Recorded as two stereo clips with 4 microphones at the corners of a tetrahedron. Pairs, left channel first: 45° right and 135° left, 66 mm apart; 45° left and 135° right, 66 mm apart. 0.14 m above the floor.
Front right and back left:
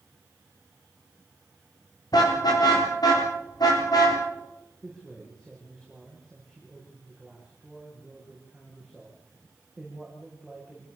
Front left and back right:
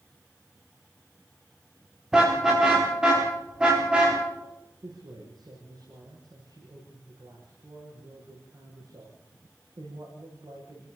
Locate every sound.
2.1 s a car horn: 55° right, 9.5 m; by 4.2 s 60° right, 11 m
4.8 s a man speaking: 130° right, 8.5 m